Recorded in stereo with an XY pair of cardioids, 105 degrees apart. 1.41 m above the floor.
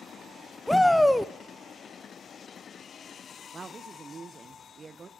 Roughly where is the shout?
Ahead.